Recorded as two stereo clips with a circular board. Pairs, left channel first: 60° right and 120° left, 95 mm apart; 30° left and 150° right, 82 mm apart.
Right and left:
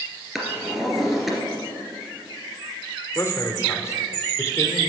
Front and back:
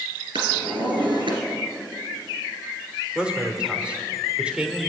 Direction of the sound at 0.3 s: 155° right.